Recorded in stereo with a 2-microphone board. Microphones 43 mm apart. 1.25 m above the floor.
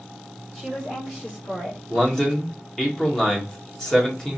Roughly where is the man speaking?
Centre.